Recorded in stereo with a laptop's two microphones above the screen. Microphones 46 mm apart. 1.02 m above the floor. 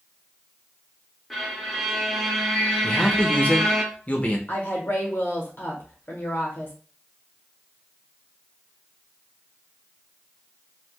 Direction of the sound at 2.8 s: 30° left (ahead or behind).